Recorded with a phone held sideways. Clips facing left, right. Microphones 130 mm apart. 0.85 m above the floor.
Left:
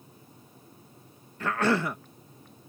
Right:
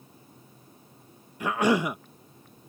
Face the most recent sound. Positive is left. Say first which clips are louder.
# right 2 dB
turn(degrees=-15)  # may be behind; listen again after turning